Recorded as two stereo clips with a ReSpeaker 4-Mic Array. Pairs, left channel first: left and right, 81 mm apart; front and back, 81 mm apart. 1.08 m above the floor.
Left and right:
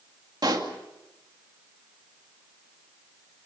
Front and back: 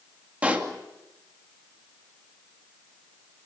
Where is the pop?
110° right, 2.5 m.